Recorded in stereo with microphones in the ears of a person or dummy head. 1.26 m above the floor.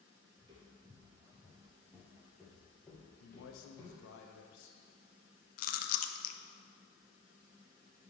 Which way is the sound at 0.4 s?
35° right (ahead or behind).